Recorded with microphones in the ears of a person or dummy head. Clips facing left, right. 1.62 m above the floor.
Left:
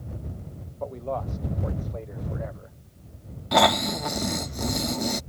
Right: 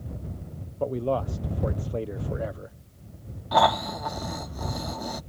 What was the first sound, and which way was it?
A man speaking, 40° right (ahead or behind).